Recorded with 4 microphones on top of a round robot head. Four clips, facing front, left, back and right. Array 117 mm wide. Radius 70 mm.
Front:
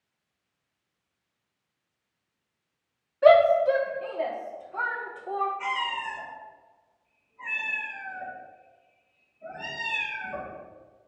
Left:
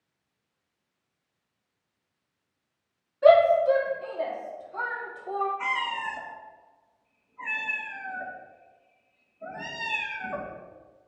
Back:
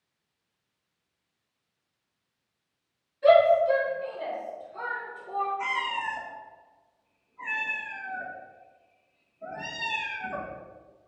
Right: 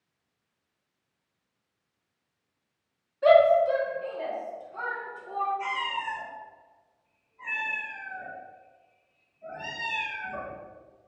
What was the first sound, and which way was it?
A shout, 10° left.